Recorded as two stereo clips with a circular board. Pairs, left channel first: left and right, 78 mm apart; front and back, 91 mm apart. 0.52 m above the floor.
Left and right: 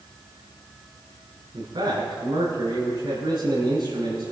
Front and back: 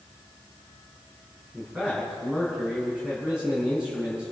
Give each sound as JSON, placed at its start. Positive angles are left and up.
{"t": 1.5, "sound": "a man speaking", "azimuth_deg": -100, "distance_m": 6.5}